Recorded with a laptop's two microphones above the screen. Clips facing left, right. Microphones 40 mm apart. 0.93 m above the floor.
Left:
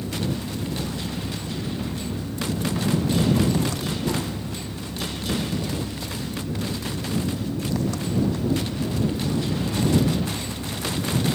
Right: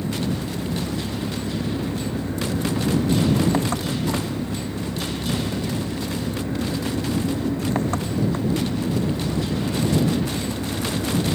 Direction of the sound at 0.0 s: 35° right (ahead or behind).